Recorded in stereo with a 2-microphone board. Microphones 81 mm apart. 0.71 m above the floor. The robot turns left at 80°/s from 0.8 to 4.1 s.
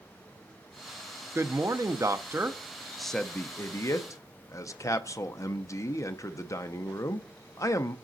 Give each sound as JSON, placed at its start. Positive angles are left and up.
{"t": 1.4, "sound": "a man speaking", "azimuth_deg": -45, "distance_m": 0.5}